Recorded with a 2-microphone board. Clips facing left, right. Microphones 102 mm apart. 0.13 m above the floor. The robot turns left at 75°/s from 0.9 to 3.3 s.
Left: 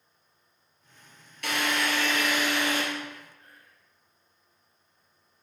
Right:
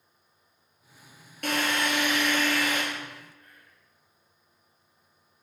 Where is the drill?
120° right, 2.5 m; by 2.8 s 135° left, 2.5 m.